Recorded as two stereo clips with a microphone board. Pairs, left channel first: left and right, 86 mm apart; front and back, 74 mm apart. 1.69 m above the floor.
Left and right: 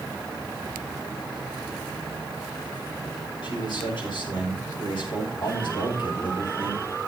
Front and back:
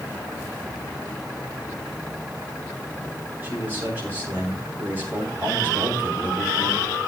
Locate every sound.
3.4 s a man speaking: 110° left, 6.5 m